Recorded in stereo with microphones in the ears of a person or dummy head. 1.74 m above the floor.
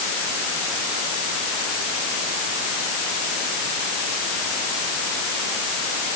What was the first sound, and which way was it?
Only background noise.